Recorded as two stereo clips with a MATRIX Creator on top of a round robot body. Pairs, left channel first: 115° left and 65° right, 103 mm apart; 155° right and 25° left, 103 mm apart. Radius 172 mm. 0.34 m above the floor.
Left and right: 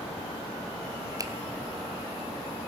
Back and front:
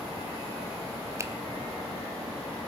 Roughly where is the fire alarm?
No fire alarm in this recording.